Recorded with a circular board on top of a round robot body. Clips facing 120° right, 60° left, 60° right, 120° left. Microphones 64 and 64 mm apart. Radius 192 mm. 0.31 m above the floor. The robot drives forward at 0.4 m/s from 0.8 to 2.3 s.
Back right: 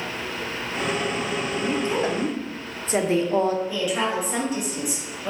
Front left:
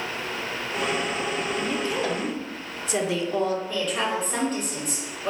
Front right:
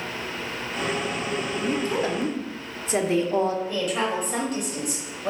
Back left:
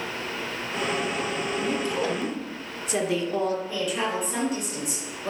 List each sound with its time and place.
1.6 s a woman speaking: 65° right, 1.0 m; by 3.6 s 95° right, 1.0 m
3.7 s a woman speaking: 40° right, 2.5 m